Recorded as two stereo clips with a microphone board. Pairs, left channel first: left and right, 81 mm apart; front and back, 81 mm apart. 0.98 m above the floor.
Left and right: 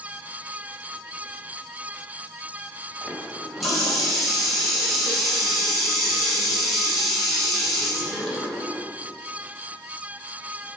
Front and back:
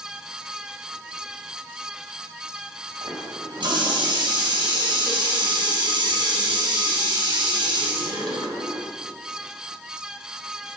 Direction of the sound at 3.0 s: Straight behind.